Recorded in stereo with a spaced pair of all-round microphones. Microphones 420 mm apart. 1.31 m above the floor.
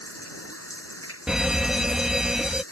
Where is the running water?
35° left (ahead or behind).